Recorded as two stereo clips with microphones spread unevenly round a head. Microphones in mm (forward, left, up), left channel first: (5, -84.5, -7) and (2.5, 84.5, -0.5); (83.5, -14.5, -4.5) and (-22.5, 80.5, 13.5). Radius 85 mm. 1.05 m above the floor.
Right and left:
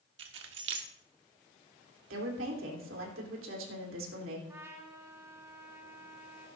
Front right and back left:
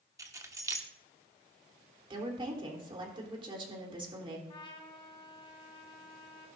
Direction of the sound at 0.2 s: 70° left.